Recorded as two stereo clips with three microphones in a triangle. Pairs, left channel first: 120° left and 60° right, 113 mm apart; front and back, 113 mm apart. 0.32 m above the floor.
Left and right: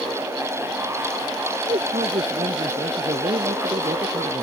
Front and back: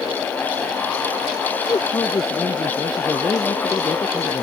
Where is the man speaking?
55° right.